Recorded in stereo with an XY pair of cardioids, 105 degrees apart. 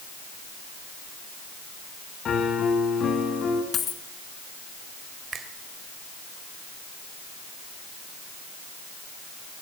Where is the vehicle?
No vehicle in this recording.